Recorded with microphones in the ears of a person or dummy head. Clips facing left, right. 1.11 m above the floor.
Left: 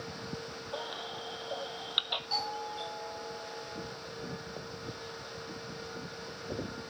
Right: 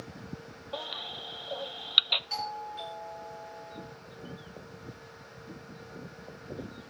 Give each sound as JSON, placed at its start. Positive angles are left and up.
{"t": 0.7, "sound": "a baby crying", "side_deg": -25, "distance_m": 0.6}
{"t": 2.3, "sound": "a doorbell", "side_deg": -35, "distance_m": 5.0}